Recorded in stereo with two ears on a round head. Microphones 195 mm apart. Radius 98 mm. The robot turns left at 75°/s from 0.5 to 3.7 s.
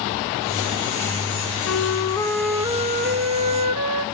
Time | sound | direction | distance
1.6 | a flute | 60° left | 0.8 m